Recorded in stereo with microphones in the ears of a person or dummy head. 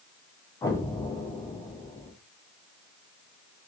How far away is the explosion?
About 0.6 m.